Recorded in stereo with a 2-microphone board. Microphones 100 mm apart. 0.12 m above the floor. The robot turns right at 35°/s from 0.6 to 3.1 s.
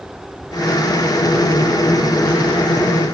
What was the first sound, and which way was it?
Only background noise.